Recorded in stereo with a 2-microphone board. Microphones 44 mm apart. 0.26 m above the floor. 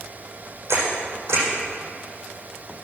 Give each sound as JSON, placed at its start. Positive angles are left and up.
{"t": 0.7, "sound": "a camera shutter", "side_deg": -80, "distance_m": 7.5}